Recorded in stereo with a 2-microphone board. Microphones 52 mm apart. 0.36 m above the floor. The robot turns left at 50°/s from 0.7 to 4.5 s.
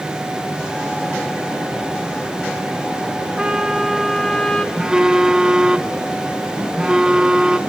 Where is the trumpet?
150° right, 1.7 m; by 4.7 s 155° left, 1.7 m.